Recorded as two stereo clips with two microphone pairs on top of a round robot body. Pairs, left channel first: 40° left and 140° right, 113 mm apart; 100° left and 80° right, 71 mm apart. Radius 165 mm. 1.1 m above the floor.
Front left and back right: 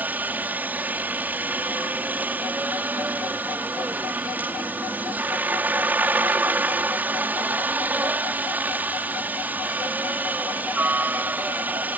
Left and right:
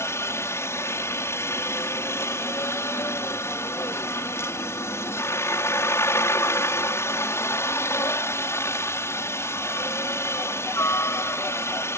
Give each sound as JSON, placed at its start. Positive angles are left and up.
{"t": 0.0, "sound": "a helicopter", "azimuth_deg": 150}